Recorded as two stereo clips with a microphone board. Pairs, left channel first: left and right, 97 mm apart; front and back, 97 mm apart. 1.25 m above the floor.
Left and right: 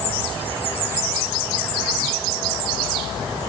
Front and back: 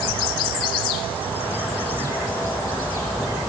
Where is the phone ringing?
I don't hear a phone ringing.